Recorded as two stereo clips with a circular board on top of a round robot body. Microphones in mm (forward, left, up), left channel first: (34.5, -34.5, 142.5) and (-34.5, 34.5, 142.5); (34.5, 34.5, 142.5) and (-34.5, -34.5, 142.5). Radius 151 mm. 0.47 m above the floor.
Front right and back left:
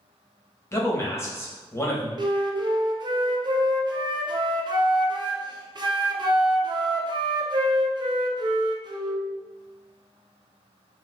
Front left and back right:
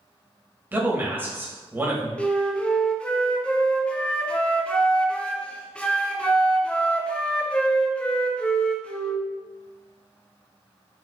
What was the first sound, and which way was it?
A man speaking, 80° right.